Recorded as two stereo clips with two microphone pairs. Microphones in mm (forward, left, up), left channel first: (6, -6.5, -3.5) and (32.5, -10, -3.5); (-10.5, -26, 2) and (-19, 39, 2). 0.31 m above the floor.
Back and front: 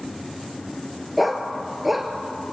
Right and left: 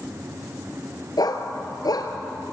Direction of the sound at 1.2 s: 100° right.